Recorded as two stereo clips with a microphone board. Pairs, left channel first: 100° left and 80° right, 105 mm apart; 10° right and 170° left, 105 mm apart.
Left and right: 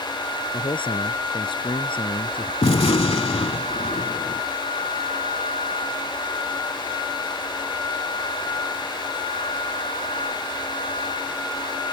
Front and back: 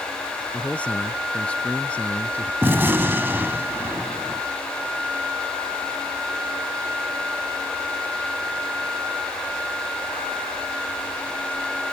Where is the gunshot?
105° left.